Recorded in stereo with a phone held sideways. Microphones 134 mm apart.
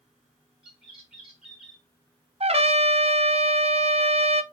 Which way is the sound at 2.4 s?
50° right (ahead or behind).